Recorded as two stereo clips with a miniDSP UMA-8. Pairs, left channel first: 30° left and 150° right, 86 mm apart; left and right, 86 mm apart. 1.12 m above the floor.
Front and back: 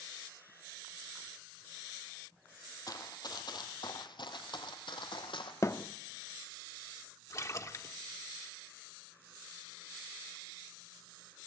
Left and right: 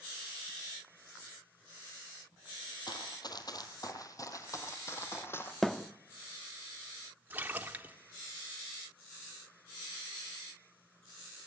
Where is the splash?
20° right, 1.4 m.